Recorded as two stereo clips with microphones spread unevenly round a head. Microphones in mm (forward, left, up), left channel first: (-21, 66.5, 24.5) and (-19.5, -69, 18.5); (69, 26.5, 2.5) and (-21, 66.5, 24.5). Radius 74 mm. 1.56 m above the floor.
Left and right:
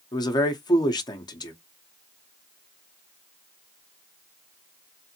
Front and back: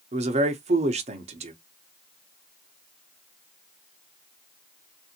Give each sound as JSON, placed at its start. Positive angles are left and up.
{"t": 0.1, "sound": "a man speaking", "azimuth_deg": 150, "distance_m": 1.0}